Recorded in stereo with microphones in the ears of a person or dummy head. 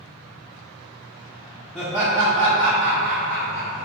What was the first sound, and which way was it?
Laughter, centre (ahead or behind).